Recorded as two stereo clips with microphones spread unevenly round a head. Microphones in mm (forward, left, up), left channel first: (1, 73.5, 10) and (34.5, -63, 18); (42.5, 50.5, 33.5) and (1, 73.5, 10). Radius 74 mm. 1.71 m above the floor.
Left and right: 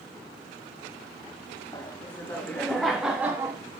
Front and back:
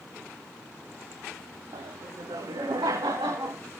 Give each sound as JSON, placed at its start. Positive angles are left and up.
{"t": 1.7, "sound": "laughter", "azimuth_deg": 180, "distance_m": 1.7}